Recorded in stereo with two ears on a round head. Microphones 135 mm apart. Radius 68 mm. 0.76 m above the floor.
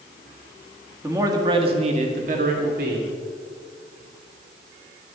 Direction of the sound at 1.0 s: 15° right (ahead or behind).